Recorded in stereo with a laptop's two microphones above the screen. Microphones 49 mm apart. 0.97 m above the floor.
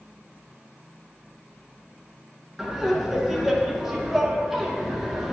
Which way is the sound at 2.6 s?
5° right (ahead or behind).